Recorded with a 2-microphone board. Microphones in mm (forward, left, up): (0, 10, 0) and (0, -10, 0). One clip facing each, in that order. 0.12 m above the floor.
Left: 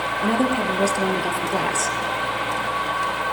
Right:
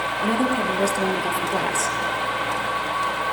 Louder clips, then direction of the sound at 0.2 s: Left 1 dB; 15° left (ahead or behind).